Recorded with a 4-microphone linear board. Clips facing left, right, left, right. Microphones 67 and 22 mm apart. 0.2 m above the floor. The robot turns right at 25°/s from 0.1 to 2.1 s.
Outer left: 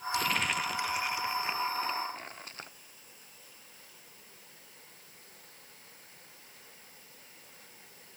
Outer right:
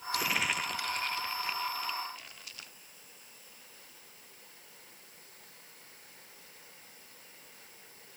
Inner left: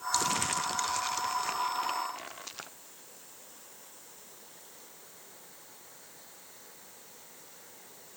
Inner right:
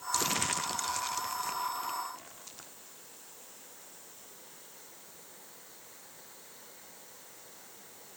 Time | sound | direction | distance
0.1 | crumpling | 10° right | ?